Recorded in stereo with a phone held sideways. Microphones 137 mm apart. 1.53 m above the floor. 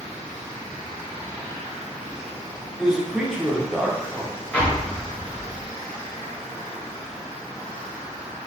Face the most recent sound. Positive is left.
turn(degrees=10)  # may be behind; listen again after turning